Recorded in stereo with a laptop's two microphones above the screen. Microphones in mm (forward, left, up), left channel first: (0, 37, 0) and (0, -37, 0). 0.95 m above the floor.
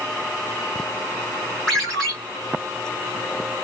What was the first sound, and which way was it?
A ringtone, 10° left (ahead or behind).